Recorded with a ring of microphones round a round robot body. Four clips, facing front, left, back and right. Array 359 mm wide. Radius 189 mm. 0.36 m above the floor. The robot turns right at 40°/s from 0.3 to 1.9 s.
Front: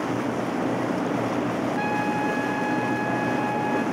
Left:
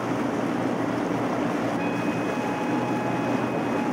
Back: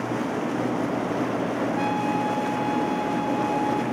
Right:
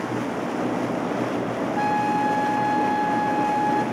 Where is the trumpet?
80° right, 1.5 m; by 3.8 s 70° right, 1.5 m.